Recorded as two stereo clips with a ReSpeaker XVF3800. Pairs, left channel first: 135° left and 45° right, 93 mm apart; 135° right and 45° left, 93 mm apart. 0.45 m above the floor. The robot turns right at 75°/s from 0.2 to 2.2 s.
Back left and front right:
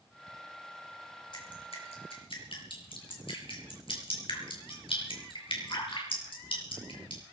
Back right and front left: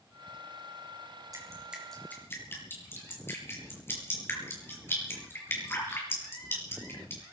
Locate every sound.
1.3 s dripping: 95° left, 6 m; by 7.2 s 160° left, 6 m